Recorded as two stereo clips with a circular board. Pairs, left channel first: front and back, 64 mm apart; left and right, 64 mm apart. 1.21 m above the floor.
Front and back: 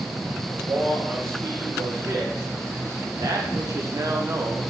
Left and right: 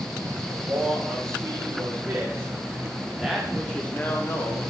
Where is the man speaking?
130° right, 2.0 m; by 4.7 s 120° left, 0.8 m.